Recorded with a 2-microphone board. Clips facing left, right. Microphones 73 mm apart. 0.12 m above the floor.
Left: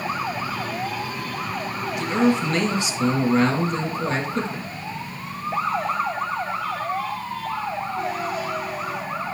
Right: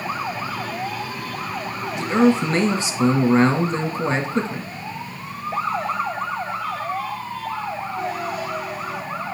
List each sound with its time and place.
1.9 s a man speaking: 35° right (ahead or behind), 1.8 m